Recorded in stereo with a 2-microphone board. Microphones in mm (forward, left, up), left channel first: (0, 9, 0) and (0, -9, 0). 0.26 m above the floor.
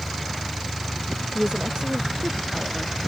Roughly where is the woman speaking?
Right.